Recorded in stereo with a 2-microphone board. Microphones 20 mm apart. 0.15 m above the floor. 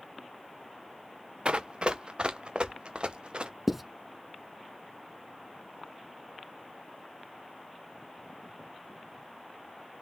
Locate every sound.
1.4 s running footsteps: 50° right (ahead or behind), 0.7 m; by 3.5 s 55° right (ahead or behind), 1.7 m
3.7 s writing: 10° right (ahead or behind), 0.7 m